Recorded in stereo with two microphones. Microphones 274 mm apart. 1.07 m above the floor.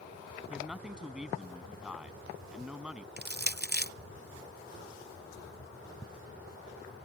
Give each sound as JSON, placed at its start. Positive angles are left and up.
{"t": 0.5, "sound": "a man speaking", "side_deg": -5}
{"t": 3.2, "sound": "crushing", "side_deg": -35}